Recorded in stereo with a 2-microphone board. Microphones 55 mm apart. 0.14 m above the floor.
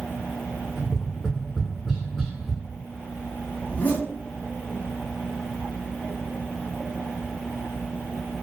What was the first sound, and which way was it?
Tapping, 5° right (ahead or behind).